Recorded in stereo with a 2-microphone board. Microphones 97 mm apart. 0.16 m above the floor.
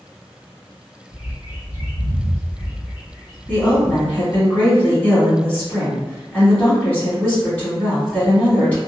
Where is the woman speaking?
15° left (ahead or behind), 1.4 m.